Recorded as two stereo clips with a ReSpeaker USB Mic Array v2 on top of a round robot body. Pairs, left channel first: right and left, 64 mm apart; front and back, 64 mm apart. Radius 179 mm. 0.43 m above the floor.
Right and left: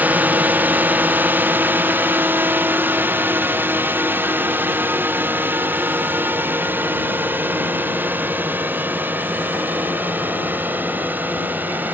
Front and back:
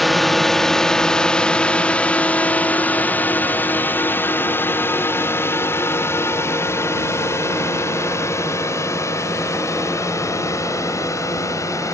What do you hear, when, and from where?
0.0 s a drone: 90° left; by 11.9 s 30° left